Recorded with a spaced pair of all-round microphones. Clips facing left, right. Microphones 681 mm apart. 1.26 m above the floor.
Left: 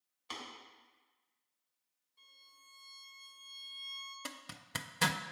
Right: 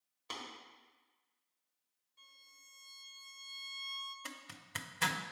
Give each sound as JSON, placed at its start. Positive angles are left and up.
{"t": 0.3, "sound": "tapping", "side_deg": -65, "distance_m": 2.0}
{"t": 2.2, "sound": "a violin", "side_deg": -15, "distance_m": 0.9}
{"t": 4.2, "sound": "a zipper", "side_deg": 70, "distance_m": 0.5}